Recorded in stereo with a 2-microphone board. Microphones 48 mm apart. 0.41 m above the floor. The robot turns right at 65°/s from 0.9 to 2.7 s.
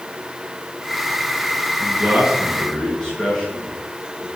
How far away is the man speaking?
About 6 m.